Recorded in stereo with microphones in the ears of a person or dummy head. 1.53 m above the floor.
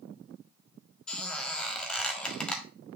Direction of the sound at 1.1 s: 5° left (ahead or behind).